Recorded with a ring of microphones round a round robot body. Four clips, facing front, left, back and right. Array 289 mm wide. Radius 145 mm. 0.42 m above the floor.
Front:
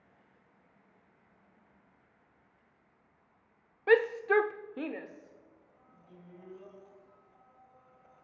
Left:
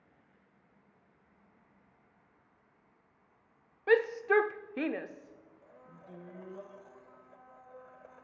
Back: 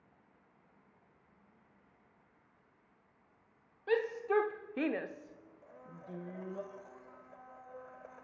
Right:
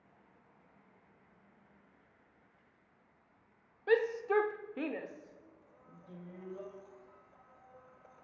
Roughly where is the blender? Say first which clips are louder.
Left 4 dB, back 10 dB; behind left.